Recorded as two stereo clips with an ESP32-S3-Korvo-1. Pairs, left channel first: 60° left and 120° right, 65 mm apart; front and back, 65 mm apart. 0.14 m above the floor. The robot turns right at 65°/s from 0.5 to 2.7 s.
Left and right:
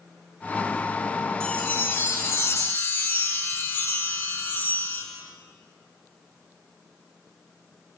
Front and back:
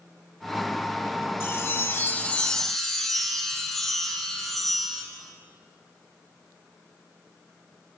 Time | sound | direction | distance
1.4 | a chime | straight ahead | 0.5 m